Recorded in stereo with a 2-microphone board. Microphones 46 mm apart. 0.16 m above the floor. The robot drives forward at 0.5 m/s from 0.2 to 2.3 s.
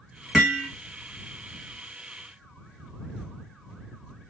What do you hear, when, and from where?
0.3 s hammering: 5° right (ahead or behind), 1.3 m; by 0.7 s 10° right (ahead or behind), 1.2 m